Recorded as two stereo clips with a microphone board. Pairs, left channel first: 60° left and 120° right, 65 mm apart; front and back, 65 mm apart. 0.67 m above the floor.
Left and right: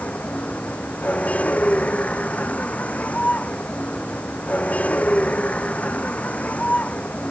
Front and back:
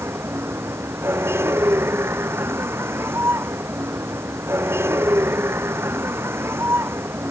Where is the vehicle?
130° left.